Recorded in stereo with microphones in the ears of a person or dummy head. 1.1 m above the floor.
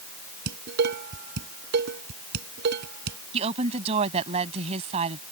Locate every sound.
0.5 s dishes clattering: 60° right (ahead or behind)
3.3 s a woman speaking: 35° right (ahead or behind)